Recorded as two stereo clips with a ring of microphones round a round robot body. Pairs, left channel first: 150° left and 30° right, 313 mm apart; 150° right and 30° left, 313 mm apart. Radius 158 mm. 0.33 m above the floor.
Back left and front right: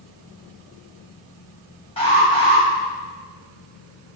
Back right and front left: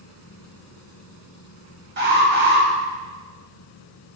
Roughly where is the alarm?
Left.